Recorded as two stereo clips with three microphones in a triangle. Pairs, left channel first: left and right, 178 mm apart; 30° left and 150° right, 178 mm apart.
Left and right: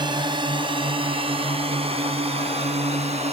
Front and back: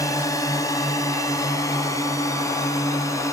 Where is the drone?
35° right; by 3.3 s 40° right.